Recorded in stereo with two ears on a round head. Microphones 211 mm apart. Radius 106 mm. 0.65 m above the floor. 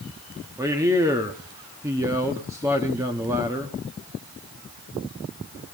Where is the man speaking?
15° right (ahead or behind), 1.2 m.